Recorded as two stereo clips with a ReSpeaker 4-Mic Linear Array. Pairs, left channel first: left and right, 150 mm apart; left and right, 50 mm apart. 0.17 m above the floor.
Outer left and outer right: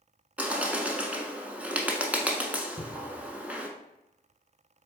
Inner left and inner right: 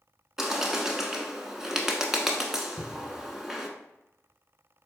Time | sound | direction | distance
0.4 | a bird | 10° right (ahead or behind) | 0.7 m
2.8 | a cupboard door | 40° left (ahead or behind) | 0.6 m